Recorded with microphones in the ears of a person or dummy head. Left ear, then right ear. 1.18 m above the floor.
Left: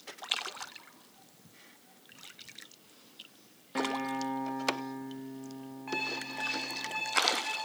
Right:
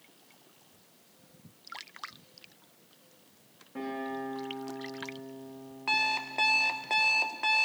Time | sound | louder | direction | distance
3.8 | a guitar | left 3 dB | 60° left (ahead or behind) | 0.9 m
5.9 | an alarm clock | right 7 dB | 65° right (ahead or behind) | 0.5 m